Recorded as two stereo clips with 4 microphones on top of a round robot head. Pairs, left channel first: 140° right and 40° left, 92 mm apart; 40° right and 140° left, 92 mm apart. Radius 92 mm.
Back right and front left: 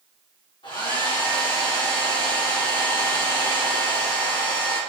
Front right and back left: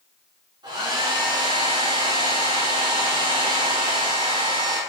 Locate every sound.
0.6 s a hair dryer: straight behind, 2.5 m